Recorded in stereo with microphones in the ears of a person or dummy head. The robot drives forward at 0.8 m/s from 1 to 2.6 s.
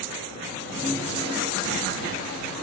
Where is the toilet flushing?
75° left (ahead or behind), 1.4 m; by 2.6 s 45° left (ahead or behind), 1.9 m.